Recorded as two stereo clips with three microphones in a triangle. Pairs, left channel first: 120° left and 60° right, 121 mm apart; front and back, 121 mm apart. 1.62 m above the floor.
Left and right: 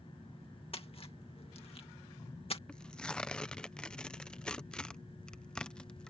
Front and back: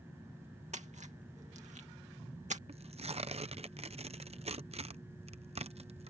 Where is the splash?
160° left.